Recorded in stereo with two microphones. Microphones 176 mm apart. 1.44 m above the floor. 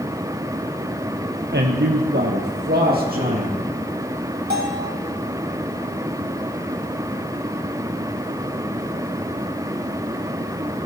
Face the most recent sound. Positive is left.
turn(degrees=-65)  # may be behind; listen again after turning